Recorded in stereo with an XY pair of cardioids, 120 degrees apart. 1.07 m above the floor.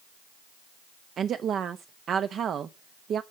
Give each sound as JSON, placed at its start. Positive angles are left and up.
{"t": 1.2, "sound": "a woman speaking", "azimuth_deg": -50, "distance_m": 0.8}